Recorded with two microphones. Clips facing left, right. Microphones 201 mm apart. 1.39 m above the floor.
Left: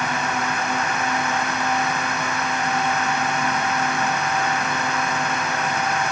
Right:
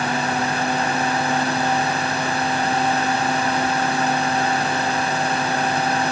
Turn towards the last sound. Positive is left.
No sound to turn to.